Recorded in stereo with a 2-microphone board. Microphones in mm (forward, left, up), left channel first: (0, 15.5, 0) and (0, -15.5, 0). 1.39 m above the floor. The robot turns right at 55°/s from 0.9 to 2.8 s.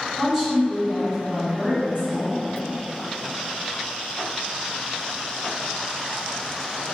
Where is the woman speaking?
165° right, 2.0 m; by 2.4 s 85° right, 2.0 m.